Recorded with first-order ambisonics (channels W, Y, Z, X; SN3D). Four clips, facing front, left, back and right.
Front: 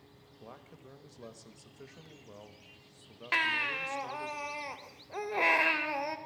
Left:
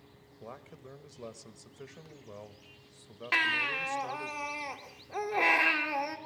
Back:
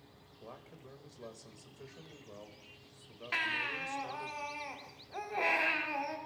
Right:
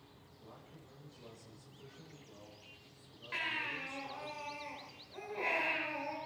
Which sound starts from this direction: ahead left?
A baby crying, at 3.3 s.